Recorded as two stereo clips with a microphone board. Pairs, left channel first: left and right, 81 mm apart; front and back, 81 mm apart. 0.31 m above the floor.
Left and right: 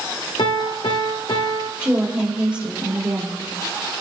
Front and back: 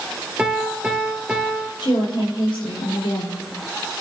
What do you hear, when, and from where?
0.4 s a piano: 105° left, 1.7 m
1.8 s a woman speaking: 15° right, 7 m